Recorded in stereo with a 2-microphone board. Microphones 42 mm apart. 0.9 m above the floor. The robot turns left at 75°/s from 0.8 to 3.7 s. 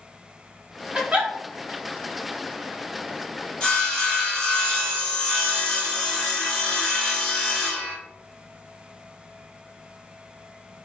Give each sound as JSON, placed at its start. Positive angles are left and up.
{"t": 0.9, "sound": "a giggle", "side_deg": -30, "distance_m": 1.2}
{"t": 3.6, "sound": "sawing", "side_deg": 25, "distance_m": 1.8}